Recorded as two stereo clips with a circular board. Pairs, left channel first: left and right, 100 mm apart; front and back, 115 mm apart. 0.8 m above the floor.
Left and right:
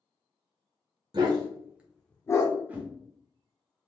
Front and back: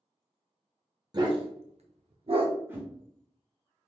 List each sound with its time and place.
1.1 s a dog barking: 130° right, 1.0 m; by 2.5 s 135° left, 0.8 m
2.7 s a whoosh: 140° right, 1.1 m